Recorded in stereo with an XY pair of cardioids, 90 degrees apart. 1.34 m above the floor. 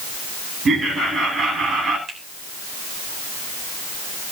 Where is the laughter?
60° right, 9 m.